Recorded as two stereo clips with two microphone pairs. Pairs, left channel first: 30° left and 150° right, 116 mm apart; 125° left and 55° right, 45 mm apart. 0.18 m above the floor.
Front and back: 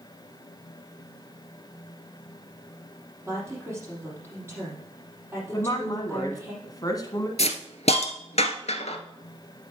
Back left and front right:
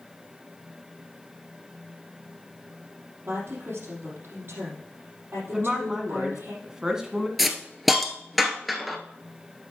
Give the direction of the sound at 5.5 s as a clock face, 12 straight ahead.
12 o'clock.